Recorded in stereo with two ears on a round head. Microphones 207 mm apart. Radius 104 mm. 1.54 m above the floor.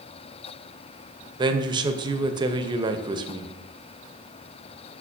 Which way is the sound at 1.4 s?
20° right (ahead or behind).